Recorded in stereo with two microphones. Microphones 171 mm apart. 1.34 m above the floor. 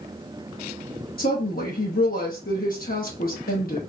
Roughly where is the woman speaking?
Left.